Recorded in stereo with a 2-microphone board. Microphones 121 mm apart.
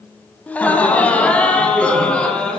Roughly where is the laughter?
Centre.